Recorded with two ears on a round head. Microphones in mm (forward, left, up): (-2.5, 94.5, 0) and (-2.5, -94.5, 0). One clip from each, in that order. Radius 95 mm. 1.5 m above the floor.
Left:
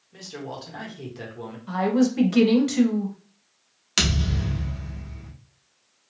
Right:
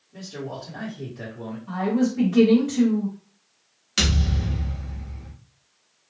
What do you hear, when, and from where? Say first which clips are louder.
0.1 s a man speaking: right 1 dB; 45° left (ahead or behind), 1.2 m
1.7 s a woman speaking: left 2 dB; 80° left, 1.0 m
4.0 s a thud: even; 25° left (ahead or behind), 0.9 m